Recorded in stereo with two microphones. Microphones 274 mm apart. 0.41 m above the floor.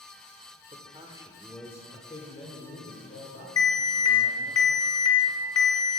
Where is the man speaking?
25° right (ahead or behind), 1.0 m; by 4.6 s 60° left (ahead or behind), 2 m.